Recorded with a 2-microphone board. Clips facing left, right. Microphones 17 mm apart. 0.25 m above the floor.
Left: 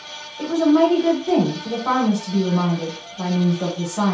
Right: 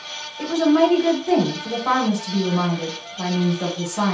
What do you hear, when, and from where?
0.4 s a woman speaking: 10° right (ahead or behind), 0.9 m